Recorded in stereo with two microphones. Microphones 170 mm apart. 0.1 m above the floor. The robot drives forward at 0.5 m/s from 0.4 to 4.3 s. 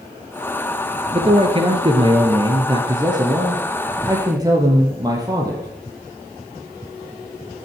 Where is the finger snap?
I don't hear a finger snap.